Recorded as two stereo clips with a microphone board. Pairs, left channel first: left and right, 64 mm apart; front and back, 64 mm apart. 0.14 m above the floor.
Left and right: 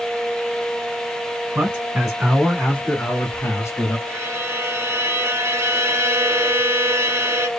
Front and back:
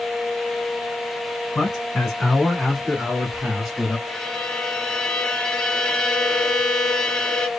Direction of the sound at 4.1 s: 65° right.